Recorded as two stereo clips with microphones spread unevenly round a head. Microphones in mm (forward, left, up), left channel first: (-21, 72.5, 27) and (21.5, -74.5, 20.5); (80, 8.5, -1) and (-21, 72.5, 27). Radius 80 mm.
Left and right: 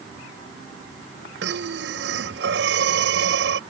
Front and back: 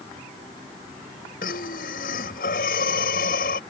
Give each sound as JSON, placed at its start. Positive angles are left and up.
{"t": 1.4, "sound": "breathing", "azimuth_deg": -60}